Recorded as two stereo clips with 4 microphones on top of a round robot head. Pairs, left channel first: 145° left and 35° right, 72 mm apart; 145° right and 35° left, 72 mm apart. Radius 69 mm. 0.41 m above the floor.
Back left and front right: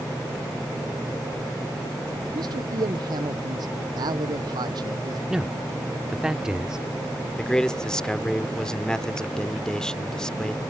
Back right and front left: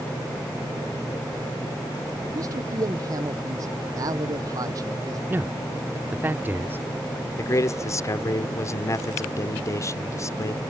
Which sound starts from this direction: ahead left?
A man speaking, at 5.3 s.